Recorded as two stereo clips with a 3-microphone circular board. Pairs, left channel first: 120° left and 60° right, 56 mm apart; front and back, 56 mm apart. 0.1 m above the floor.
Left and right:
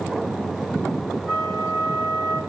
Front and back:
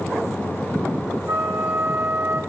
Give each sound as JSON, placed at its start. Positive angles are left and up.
{"t": 1.3, "sound": "a flute", "azimuth_deg": -150, "distance_m": 3.5}